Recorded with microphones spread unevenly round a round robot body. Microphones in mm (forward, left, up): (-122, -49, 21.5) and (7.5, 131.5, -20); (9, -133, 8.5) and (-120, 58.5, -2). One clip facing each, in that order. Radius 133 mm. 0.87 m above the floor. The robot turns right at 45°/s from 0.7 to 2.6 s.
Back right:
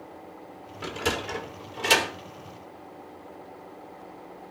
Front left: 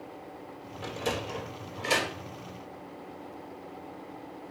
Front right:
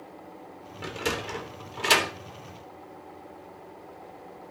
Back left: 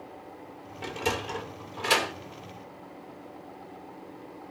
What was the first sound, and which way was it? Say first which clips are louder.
A sliding door: back right 3 dB, even; 135° right.